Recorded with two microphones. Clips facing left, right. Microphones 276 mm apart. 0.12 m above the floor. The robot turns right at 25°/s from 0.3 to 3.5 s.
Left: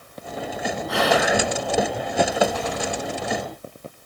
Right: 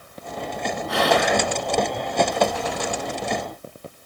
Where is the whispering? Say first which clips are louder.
Even; centre (ahead or behind), 1.6 m; by 1.4 s 5° left (ahead or behind), 1.6 m.